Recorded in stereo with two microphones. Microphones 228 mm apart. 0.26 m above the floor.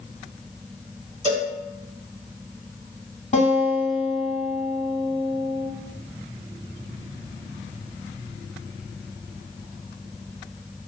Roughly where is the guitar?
Left.